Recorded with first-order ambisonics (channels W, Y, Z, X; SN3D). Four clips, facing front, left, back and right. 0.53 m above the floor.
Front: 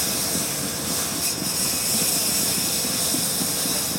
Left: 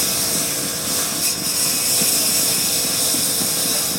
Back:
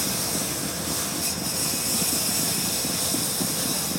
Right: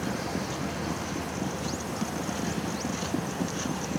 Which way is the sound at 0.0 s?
80° left.